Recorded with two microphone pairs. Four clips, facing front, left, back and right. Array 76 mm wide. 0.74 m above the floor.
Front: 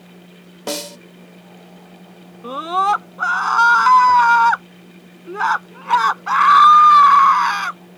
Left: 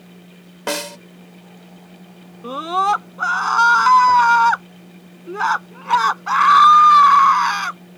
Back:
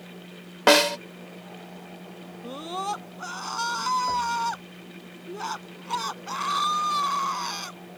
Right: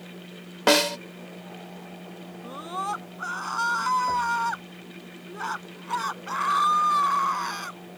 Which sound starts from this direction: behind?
A snare drum, at 0.7 s.